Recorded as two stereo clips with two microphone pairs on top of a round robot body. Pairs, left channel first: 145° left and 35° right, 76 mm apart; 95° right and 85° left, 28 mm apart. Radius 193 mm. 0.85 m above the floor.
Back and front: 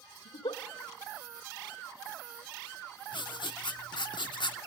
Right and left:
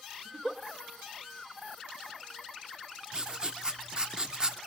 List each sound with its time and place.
0.2 s a giggle: 150° left, 1.0 m
3.1 s writing: 145° left, 0.7 m